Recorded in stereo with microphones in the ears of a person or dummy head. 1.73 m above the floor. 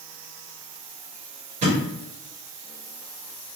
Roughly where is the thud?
Right.